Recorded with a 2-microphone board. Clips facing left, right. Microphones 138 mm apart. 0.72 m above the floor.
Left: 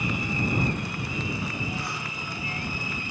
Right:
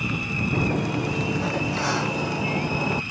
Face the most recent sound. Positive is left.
turn(degrees=-80)